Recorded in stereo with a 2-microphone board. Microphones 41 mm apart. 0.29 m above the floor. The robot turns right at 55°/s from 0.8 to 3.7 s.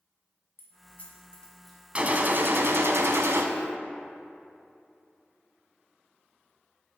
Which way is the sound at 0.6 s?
45° left (ahead or behind).